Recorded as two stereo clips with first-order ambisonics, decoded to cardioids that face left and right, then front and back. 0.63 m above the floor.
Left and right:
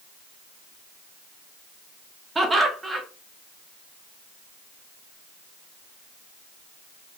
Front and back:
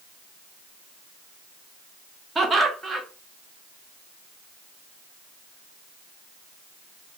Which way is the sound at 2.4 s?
150° right.